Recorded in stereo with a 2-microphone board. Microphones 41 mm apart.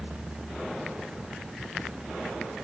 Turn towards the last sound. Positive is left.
No sound to turn to.